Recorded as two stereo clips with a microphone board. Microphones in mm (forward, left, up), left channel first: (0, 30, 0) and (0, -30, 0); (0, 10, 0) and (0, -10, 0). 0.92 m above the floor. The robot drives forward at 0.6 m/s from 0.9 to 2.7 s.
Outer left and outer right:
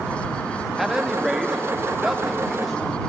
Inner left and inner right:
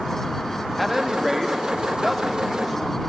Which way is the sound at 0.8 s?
5° right (ahead or behind).